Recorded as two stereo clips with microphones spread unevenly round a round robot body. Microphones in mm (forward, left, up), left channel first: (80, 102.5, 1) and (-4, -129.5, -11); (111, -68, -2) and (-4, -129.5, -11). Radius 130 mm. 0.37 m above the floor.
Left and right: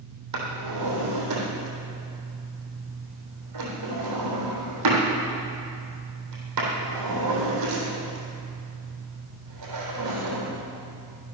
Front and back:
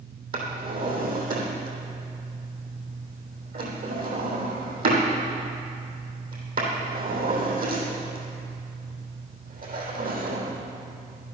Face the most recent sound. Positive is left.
turn(degrees=-140)